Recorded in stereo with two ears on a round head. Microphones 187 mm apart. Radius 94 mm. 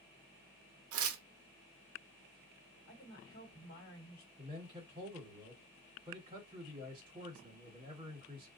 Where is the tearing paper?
75° right (ahead or behind), 0.6 m.